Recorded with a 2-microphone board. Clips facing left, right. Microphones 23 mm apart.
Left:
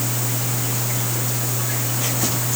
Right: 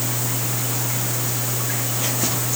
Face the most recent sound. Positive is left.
No sound to turn to.